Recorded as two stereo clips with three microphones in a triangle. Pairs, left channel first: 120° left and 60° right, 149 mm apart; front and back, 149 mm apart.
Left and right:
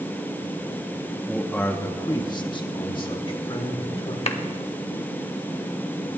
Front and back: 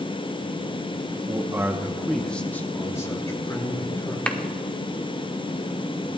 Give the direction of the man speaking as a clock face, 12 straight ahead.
5 o'clock.